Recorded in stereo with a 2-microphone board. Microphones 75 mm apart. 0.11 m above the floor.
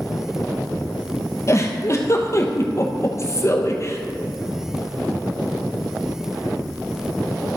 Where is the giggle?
40° left (ahead or behind), 1.3 m.